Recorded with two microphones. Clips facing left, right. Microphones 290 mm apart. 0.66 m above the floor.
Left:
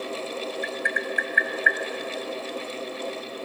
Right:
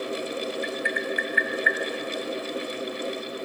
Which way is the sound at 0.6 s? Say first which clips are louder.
Right 2 dB; 55° left (ahead or behind).